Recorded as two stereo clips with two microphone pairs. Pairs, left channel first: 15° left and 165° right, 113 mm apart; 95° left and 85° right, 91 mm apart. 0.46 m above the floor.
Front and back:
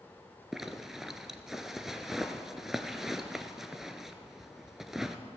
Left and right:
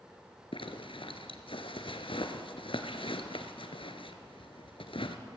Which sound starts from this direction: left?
A zipper, at 0.5 s.